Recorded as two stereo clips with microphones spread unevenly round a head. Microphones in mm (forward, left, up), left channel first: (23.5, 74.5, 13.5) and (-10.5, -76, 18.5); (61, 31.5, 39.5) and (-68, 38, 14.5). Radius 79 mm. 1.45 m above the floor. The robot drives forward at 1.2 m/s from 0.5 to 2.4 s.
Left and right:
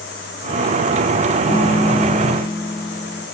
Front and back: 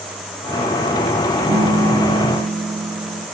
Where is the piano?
125° left, 1.4 m; by 3.2 s 150° left, 2 m.